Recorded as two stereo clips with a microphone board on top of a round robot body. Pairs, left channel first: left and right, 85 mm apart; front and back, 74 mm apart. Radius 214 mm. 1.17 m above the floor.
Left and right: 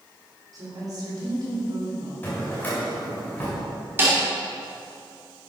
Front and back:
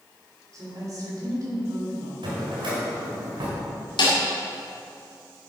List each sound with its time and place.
0.5 s a woman speaking: 135° right, 4 m
2.2 s a drawer: 160° left, 1.9 m
4.0 s a snare drum: 25° right, 2 m